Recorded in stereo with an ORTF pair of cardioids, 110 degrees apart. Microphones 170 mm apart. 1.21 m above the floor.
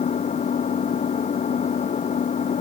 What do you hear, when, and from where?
0.0 s an engine running: 45° left